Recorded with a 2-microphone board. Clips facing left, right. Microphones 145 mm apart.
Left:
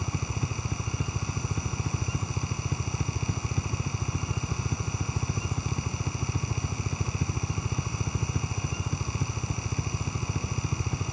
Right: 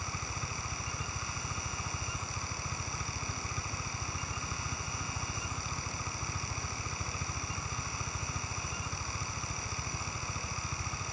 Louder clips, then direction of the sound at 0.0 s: Left 8 dB; 55° left (ahead or behind).